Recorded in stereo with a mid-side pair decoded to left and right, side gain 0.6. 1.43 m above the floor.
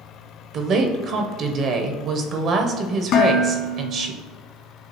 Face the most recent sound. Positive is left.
turn(degrees=65)